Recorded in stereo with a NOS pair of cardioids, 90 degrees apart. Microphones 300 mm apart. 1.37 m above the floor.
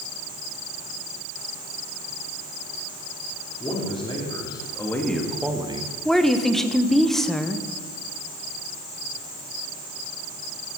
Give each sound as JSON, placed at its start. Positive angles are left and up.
{"t": 3.6, "sound": "a man speaking", "azimuth_deg": 20, "distance_m": 3.5}
{"t": 6.0, "sound": "a woman speaking", "azimuth_deg": 0, "distance_m": 1.3}